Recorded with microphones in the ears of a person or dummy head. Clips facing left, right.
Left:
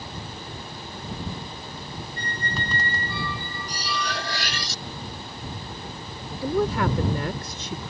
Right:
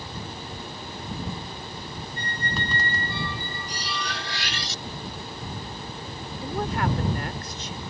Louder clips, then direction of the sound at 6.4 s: Left 5 dB; 80° left.